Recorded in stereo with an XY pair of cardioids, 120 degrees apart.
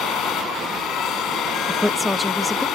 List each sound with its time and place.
0.0 s a machine running: 65° left
1.7 s a woman speaking: 5° left